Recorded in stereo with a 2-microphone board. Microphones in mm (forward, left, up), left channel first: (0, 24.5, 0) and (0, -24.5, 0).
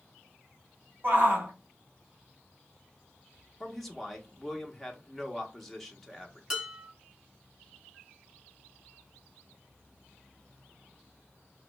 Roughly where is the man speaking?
Centre.